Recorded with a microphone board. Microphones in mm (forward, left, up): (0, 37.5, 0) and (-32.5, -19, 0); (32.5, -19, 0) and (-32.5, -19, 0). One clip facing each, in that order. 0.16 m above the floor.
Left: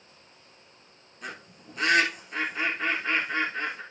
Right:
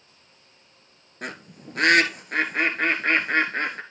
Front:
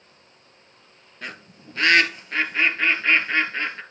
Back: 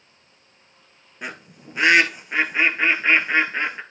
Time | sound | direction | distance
1.2 | a bird | 110° right | 1.3 m